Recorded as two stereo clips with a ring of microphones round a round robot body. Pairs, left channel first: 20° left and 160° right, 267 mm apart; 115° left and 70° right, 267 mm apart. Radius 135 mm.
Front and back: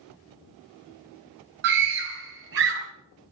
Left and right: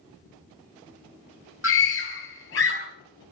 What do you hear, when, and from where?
1.6 s a scream: 160° left, 4.5 m